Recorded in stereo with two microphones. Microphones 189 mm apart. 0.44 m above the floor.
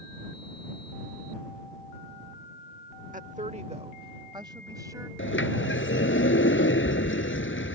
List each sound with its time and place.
3.1 s a woman speaking: 40° right (ahead or behind); by 5.1 s 15° right (ahead or behind)
5.2 s a sliding door: 85° left